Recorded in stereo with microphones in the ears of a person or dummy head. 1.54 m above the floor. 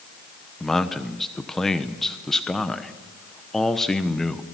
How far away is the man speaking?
About 1.0 m.